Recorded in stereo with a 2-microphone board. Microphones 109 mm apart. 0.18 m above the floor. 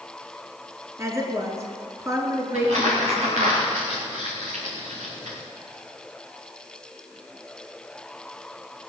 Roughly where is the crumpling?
Right.